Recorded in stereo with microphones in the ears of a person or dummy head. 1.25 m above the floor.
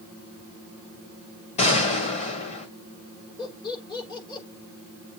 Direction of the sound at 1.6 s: 40° left (ahead or behind).